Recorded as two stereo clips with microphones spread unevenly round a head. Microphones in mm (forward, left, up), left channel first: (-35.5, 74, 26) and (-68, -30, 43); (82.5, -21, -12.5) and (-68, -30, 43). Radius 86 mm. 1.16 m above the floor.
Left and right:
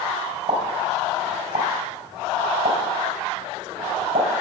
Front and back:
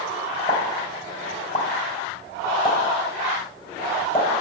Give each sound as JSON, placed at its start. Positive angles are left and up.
{"t": 0.5, "sound": "a pop", "azimuth_deg": -60, "distance_m": 2.5}